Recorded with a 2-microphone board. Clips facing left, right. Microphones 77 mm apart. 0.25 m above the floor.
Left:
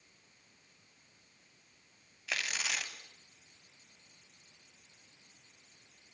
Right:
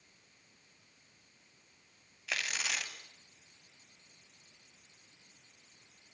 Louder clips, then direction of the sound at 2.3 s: Even; centre (ahead or behind).